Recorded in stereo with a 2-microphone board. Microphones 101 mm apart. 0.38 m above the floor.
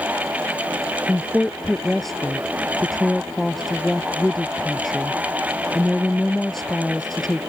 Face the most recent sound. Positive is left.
turn(degrees=0)  # may be behind; listen again after turning